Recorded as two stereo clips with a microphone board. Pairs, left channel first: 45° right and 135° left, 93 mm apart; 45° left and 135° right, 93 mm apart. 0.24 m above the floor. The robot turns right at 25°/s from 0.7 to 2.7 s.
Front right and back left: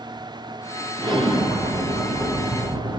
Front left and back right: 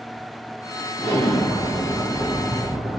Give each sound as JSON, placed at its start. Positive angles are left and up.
{"t": 1.0, "sound": "an explosion", "azimuth_deg": 95, "distance_m": 3.0}